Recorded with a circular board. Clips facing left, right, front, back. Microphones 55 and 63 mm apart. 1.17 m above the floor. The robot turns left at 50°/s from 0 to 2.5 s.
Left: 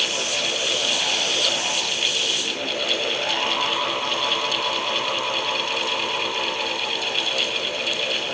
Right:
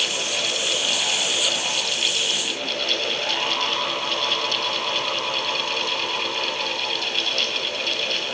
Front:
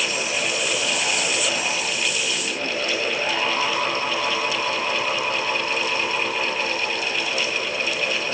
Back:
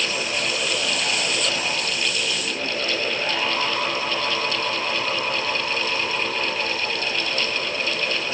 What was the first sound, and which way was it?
Only background noise.